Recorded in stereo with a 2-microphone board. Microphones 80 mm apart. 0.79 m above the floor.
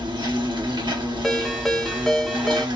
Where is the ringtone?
5° left (ahead or behind), 0.6 m.